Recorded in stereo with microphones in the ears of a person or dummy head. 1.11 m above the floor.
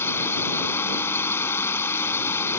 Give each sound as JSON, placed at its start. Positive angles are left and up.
{"t": 0.0, "sound": "a drone", "side_deg": 15}